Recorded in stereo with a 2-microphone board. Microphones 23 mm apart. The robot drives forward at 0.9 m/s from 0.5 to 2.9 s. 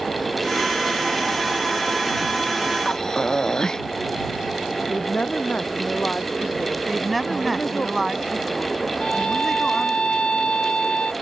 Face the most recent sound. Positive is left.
turn(degrees=50)  # may be behind; listen again after turning